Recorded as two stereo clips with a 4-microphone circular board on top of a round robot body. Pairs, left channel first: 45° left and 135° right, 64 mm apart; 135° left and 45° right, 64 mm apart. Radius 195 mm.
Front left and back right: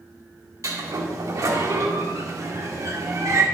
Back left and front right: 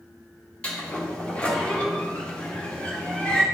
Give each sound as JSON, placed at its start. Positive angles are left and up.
{"t": 0.6, "sound": "a sliding door", "azimuth_deg": -155, "distance_m": 1.7}